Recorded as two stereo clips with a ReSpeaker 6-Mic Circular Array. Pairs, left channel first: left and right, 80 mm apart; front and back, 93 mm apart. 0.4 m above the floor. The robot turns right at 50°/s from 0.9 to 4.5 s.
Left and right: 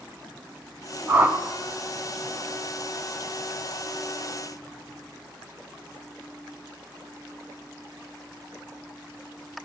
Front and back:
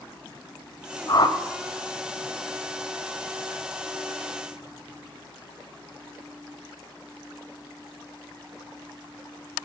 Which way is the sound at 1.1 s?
45° right.